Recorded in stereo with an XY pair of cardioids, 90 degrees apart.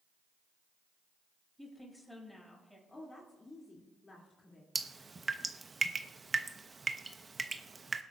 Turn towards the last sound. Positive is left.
turn(degrees=-35)